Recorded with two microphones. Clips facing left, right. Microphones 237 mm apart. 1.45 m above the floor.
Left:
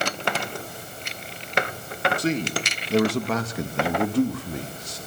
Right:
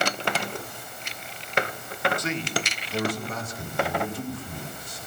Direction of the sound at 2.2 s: 30° left (ahead or behind).